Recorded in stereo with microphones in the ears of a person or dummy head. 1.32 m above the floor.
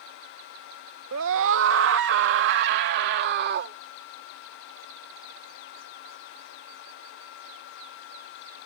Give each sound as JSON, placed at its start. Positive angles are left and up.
{"t": 1.1, "sound": "a scream", "side_deg": -70}